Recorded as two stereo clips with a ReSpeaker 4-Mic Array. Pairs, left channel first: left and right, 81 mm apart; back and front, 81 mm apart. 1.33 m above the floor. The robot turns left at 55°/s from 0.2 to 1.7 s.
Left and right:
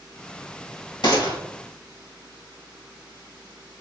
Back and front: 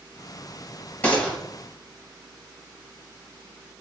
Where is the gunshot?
115° left, 1.7 m; by 1.4 s 95° left, 1.7 m.